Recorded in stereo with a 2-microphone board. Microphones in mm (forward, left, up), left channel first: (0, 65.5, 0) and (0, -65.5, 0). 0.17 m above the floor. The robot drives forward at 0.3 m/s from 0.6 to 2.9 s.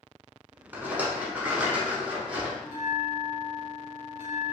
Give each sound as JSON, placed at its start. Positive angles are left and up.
{"t": 0.7, "sound": "a rattle", "side_deg": -15, "distance_m": 0.7}
{"t": 2.6, "sound": "a bell", "side_deg": 70, "distance_m": 1.0}